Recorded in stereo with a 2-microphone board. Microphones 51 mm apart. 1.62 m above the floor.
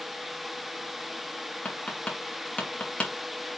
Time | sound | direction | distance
1.6 | tapping | 25° left (ahead or behind) | 2.5 m